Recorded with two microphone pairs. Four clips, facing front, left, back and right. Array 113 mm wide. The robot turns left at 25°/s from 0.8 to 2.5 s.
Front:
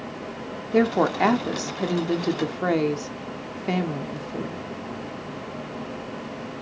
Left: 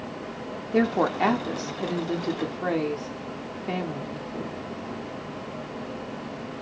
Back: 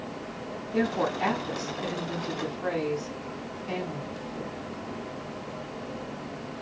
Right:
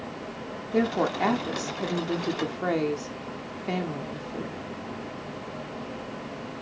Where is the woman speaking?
30° left, 1.2 m; by 4.7 s 10° right, 1.2 m.